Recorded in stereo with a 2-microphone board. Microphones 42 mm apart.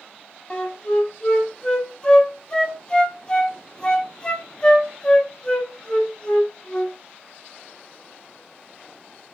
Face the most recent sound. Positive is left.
turn(degrees=25)  # may be behind; listen again after turning